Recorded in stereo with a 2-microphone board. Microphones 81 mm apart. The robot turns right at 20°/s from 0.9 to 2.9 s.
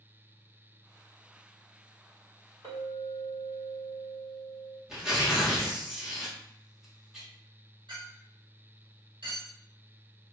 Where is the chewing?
I don't hear chewing.